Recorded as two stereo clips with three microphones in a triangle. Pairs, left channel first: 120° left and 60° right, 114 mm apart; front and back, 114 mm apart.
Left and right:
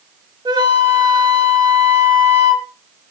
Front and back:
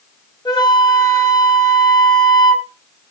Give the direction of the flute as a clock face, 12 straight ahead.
1 o'clock.